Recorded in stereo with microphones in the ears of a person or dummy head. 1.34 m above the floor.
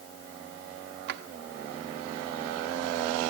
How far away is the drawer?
About 1.1 m.